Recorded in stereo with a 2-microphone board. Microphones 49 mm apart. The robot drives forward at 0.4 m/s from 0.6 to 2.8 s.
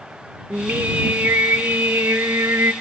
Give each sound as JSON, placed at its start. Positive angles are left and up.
{"t": 0.5, "sound": "singing", "side_deg": -50, "distance_m": 1.9}